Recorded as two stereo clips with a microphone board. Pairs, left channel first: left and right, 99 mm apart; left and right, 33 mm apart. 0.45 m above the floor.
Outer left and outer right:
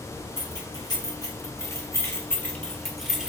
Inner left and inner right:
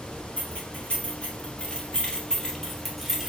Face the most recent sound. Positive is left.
turn(degrees=-5)  # may be behind; listen again after turning